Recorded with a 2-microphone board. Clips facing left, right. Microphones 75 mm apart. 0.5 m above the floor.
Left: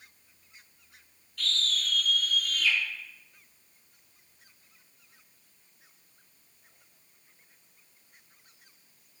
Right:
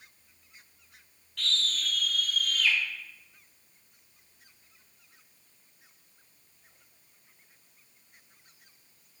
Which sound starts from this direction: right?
A scream, at 1.4 s.